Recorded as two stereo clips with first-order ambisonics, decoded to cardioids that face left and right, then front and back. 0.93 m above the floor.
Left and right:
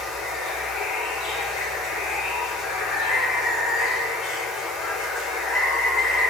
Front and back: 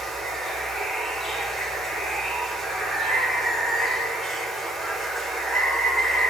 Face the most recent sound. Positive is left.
turn(degrees=110)